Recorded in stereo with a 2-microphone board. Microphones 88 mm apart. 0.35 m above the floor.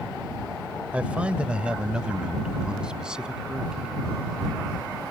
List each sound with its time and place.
0.9 s a man speaking: 15° right (ahead or behind); by 3.9 s 10° right (ahead or behind)